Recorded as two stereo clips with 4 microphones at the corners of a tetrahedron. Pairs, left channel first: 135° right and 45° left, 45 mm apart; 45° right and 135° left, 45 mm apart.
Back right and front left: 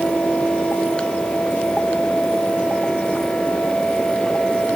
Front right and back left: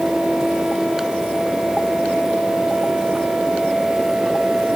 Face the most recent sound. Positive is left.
No sound to turn to.